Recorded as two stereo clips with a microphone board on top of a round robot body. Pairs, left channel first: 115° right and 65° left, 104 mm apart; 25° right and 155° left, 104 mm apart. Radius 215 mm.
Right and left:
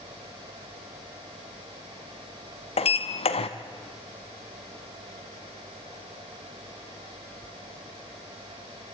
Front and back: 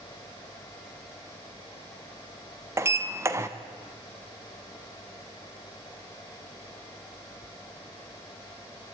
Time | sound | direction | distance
2.8 | a sliding door | 140° right | 1.2 m